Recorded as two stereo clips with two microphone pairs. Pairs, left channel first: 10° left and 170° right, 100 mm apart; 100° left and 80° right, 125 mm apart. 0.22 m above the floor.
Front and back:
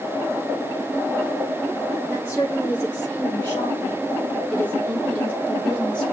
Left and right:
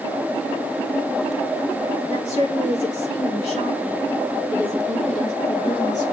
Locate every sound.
2.1 s a woman speaking: 75° left, 6.5 m; by 6.1 s 90° left, 4.5 m